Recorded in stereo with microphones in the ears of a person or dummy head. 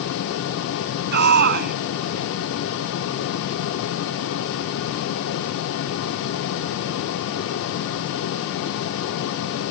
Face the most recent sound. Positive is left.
turn(degrees=-55)  # may be behind; listen again after turning